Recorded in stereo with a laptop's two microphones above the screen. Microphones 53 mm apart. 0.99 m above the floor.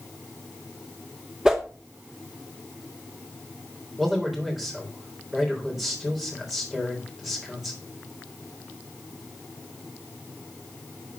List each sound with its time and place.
1.4 s a whoosh: 15° right (ahead or behind), 1.2 m
4.0 s a man speaking: 5° right (ahead or behind), 3.5 m